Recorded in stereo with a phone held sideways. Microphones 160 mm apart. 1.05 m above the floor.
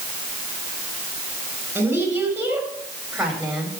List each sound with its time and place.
1.8 s a woman speaking: 10° right (ahead or behind), 6.5 m; by 3.7 s centre (ahead or behind), 6 m